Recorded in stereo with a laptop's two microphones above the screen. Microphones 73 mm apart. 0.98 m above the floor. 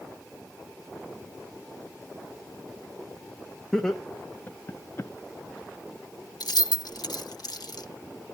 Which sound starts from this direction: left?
Keys jangling, at 6.4 s.